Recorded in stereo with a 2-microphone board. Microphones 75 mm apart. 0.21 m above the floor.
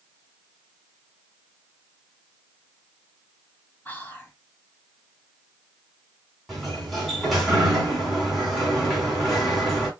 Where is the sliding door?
Centre (ahead or behind), 2.5 m.